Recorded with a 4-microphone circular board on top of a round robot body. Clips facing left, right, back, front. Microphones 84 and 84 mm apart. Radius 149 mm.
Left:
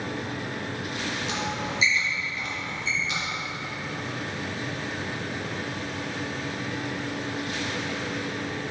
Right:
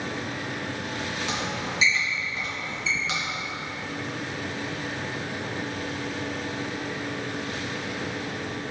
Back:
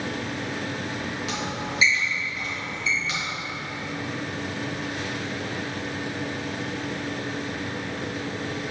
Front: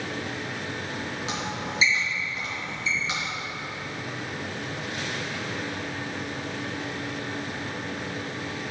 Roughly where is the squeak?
Ahead right.